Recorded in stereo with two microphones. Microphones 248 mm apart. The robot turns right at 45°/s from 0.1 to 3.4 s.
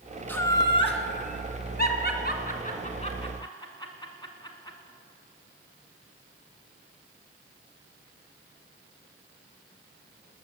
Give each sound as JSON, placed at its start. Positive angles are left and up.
{"t": 0.3, "sound": "laughter", "side_deg": 5, "distance_m": 1.8}